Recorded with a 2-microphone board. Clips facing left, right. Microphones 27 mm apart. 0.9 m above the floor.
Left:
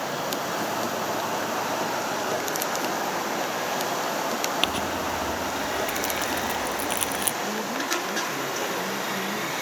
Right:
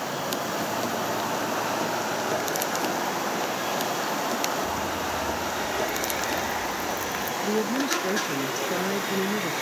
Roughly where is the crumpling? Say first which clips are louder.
Left 2 dB; left.